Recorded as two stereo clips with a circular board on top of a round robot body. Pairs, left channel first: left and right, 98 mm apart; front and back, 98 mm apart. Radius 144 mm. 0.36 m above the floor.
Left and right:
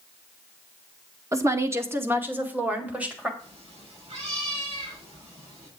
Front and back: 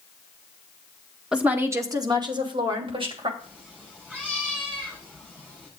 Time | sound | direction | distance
1.3 | a woman speaking | 105° right | 1.6 m
3.4 | a cat meowing | 105° right | 5.5 m